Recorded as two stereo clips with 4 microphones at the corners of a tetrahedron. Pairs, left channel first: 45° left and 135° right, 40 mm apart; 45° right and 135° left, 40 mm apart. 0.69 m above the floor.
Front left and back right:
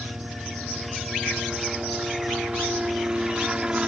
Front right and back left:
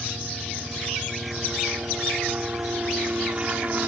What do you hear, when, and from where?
0.0 s a helicopter: 175° left; by 3.9 s 165° left